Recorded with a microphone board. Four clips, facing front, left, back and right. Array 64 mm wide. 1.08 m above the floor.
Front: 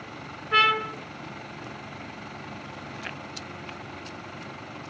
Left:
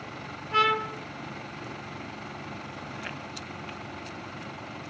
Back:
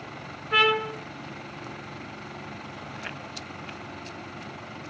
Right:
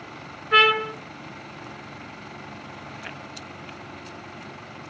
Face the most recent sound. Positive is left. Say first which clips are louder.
# right 5 dB, front 1 dB
turn(degrees=-95)